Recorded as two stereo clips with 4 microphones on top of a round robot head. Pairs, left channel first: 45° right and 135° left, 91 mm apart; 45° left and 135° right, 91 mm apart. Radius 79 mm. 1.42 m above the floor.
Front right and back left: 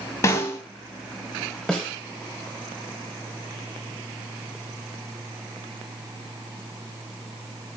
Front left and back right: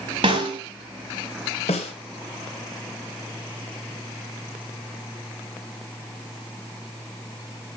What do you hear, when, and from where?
0.2 s a snare drum: 100° right, 1.6 m
1.7 s a snare drum: 35° left, 1.7 m